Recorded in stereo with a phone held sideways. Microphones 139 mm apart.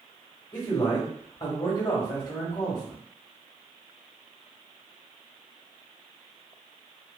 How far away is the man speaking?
About 1.1 m.